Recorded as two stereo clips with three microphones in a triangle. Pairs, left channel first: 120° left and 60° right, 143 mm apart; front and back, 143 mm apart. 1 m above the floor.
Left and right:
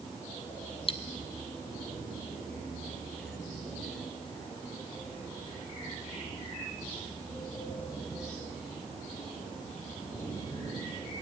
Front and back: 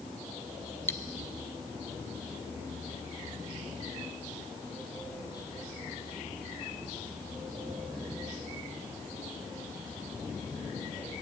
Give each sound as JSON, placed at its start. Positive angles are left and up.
{"t": 0.9, "sound": "cutlery clinking", "azimuth_deg": 70, "distance_m": 0.6}